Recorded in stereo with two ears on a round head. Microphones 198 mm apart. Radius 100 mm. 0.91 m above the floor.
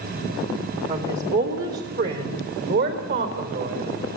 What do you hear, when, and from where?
0.9 s a woman speaking: 40° right (ahead or behind), 2.5 m; by 3.9 s 55° right (ahead or behind), 5 m